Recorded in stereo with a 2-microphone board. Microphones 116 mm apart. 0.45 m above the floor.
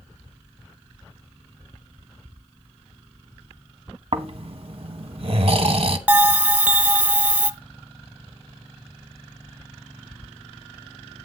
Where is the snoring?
55° right (ahead or behind), 1.0 m.